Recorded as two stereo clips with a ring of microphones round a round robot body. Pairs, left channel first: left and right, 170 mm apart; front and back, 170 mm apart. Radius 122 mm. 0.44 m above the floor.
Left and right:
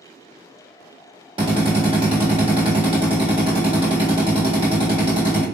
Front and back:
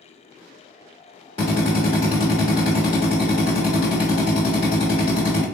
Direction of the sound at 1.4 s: 45° right.